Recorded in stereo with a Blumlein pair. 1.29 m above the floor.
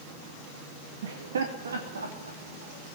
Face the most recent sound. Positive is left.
turn(degrees=-80)